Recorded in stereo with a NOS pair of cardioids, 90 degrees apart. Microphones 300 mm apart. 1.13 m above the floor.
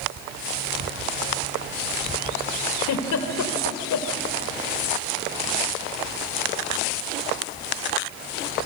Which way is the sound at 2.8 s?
65° left.